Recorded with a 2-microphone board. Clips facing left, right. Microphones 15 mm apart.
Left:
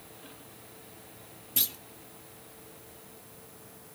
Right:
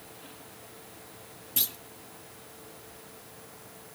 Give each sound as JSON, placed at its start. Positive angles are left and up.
{"t": 1.6, "sound": "a clunk", "side_deg": 5, "distance_m": 0.6}